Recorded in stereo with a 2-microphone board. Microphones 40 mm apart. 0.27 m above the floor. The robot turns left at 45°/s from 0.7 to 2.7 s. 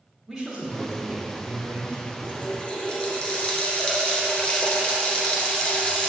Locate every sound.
0.3 s a man speaking: 15° right, 2.5 m; by 2.1 s 75° right, 2.5 m
2.2 s a running tap: 45° left (ahead or behind), 2.5 m; by 6.1 s 25° left (ahead or behind), 2.5 m